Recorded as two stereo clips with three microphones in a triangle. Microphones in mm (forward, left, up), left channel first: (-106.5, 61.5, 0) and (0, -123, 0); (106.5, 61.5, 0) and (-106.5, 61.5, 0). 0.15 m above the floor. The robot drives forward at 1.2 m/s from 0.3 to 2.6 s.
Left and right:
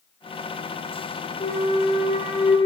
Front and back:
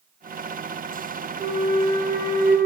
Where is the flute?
130° left, 1.7 m; by 2.6 s 160° left, 2.5 m.